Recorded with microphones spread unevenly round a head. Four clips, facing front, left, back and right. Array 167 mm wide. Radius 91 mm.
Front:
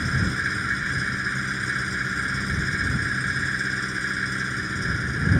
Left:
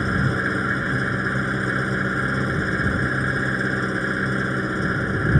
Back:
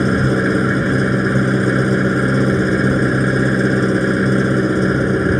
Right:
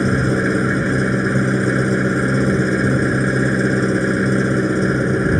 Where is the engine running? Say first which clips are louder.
Right 6 dB, back 12 dB; 150° right.